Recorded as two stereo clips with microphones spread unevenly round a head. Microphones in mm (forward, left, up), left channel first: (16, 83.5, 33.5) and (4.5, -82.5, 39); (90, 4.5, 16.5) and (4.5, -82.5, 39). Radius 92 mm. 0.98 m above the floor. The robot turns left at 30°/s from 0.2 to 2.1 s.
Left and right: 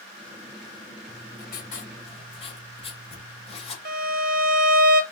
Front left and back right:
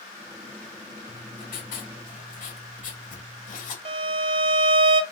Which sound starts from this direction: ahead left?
Writing, at 1.1 s.